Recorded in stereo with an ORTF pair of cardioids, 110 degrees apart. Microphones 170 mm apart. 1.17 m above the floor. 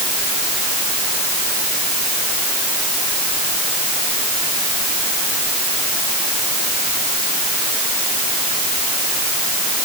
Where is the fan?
I don't hear a fan.